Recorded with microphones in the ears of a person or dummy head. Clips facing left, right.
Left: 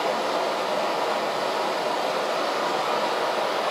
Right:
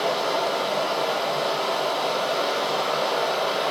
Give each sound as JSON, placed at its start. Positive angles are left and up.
{"t": 0.0, "sound": "running water", "side_deg": -50, "distance_m": 1.2}